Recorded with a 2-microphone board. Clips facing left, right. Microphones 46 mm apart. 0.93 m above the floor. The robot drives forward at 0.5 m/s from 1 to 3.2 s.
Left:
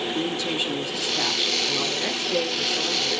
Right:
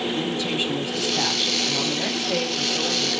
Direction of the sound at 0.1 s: 25° right (ahead or behind).